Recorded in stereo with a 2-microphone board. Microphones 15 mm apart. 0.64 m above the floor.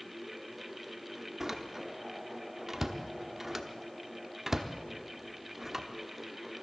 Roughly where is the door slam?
Right.